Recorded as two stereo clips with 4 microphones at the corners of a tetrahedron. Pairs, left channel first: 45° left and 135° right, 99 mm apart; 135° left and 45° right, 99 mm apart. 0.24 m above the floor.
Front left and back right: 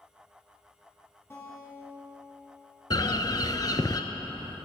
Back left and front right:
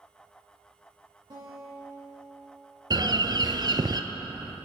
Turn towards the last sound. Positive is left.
turn(degrees=-5)